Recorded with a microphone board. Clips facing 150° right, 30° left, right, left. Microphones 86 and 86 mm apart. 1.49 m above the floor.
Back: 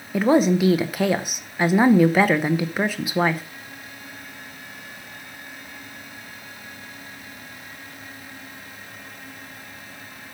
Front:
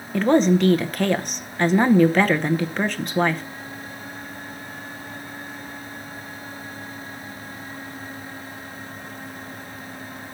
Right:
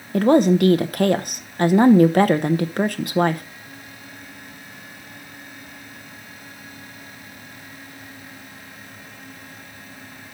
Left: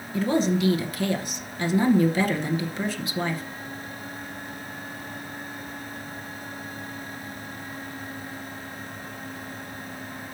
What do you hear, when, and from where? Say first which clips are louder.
0.1 s a woman speaking: even, right 8 dB; 70° right, 0.7 m